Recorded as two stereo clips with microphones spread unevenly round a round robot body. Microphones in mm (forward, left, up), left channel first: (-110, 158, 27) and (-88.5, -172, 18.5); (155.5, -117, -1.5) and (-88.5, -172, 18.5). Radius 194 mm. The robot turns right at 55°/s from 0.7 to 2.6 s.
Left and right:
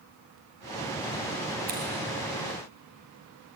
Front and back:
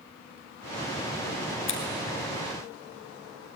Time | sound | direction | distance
1.7 | scissors | 20° right | 3 m